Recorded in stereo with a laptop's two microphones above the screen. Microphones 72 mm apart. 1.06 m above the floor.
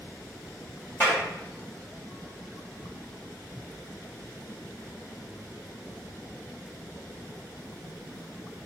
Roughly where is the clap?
Left.